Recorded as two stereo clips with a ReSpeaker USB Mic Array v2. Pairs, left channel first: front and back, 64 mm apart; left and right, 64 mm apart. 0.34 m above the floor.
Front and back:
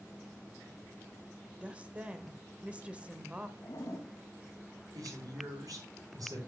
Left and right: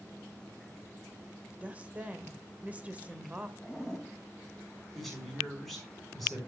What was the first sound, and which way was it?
A woman speaking, 130° right.